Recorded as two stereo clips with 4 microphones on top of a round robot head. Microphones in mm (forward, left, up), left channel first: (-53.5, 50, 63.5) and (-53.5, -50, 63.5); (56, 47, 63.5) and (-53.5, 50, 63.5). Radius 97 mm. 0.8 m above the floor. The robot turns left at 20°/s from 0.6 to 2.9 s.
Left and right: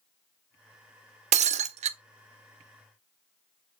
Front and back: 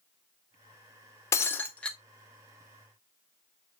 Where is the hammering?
I don't hear hammering.